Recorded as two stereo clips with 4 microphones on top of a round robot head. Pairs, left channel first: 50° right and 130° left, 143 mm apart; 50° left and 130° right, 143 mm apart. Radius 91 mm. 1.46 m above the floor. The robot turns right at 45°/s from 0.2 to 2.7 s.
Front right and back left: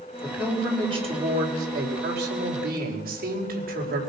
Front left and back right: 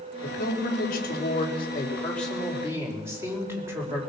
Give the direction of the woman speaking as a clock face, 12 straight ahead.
11 o'clock.